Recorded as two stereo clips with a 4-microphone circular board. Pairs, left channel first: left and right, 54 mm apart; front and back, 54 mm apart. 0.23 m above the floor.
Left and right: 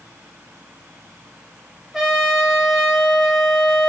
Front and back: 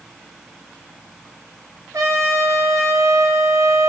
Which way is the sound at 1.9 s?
Straight behind.